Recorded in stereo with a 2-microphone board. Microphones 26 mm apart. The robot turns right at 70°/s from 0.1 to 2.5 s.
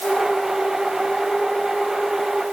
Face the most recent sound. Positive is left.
No sound to turn to.